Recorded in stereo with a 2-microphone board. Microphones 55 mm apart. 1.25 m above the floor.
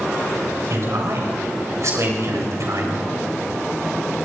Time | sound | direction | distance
0.7 | a man speaking | 60° right (ahead or behind) | 6 m